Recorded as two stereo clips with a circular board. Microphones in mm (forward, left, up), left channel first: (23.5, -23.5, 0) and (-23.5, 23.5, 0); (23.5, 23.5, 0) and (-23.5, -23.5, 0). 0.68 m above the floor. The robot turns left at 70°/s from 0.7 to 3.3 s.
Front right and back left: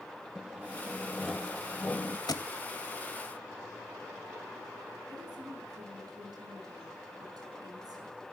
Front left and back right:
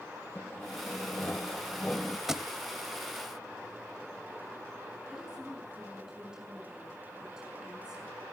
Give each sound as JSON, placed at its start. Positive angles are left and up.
{"t": 0.3, "sound": "sawing", "azimuth_deg": 80, "distance_m": 0.9}
{"t": 2.3, "sound": "a thud", "azimuth_deg": -50, "distance_m": 1.1}
{"t": 5.1, "sound": "a woman speaking", "azimuth_deg": 145, "distance_m": 7.0}